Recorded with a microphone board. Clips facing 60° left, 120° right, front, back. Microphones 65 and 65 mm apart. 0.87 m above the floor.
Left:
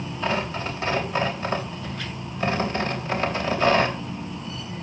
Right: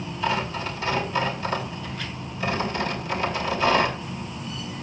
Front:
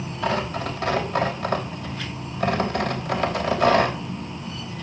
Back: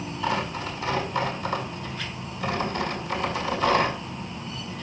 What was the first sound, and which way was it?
Tearing paper, 5° left.